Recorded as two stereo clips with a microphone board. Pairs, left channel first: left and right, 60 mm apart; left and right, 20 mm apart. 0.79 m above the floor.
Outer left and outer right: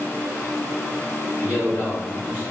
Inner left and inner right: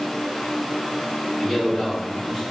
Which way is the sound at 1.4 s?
70° left (ahead or behind).